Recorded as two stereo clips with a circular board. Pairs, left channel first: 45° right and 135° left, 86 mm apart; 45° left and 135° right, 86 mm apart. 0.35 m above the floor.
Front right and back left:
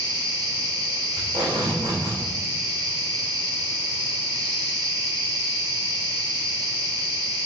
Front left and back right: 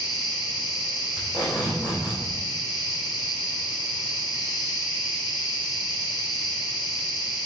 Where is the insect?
130° left, 2.5 m.